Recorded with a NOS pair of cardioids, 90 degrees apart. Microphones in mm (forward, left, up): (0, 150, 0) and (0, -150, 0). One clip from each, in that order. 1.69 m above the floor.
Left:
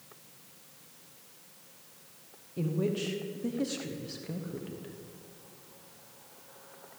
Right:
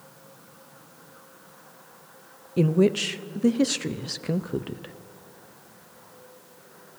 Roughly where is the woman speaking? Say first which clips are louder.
Right 11 dB; ahead right.